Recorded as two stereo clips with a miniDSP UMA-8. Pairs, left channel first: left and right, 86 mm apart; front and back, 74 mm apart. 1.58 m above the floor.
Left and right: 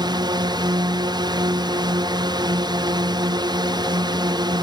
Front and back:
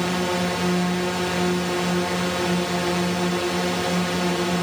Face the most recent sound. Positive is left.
turn(degrees=-85)